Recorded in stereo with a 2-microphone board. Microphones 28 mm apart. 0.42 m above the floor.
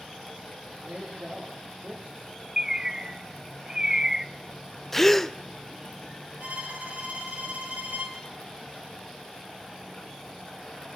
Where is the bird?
20° right (ahead or behind), 0.6 m.